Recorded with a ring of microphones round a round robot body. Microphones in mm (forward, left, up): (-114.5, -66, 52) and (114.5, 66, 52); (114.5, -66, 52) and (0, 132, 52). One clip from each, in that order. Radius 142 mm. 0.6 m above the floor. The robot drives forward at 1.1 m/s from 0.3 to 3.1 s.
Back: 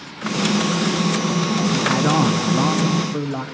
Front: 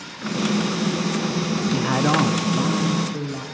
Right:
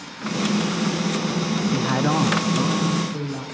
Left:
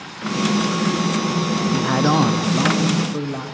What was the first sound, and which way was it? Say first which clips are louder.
A man speaking: back 1 dB, left 4 dB; 10° left.